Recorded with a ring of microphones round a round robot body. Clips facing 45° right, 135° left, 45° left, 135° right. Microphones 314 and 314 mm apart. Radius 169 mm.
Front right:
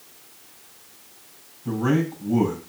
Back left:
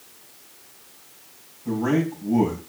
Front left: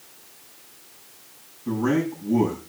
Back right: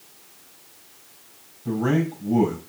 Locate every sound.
1.6 s a man speaking: 110° right, 6 m